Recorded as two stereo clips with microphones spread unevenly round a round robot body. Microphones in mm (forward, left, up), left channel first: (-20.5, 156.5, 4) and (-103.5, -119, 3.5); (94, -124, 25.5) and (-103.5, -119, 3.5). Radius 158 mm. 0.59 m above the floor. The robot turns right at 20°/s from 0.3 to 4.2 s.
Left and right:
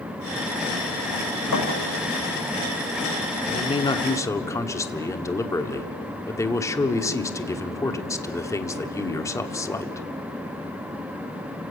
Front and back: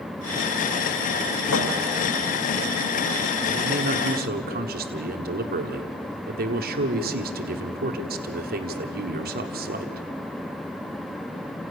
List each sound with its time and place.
1.5 s a thud: 25° left, 5.5 m; by 1.7 s 30° left, 5.5 m
3.5 s a man speaking: 135° left, 1.3 m; by 10.1 s 150° left, 1.3 m